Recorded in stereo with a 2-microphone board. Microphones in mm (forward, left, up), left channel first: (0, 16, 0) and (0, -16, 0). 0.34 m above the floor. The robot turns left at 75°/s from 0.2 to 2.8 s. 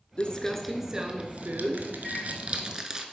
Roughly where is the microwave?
Centre.